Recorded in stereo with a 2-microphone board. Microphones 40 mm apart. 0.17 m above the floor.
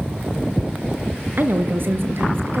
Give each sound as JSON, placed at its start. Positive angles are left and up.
{"t": 1.4, "sound": "a woman speaking", "side_deg": -55, "distance_m": 2.5}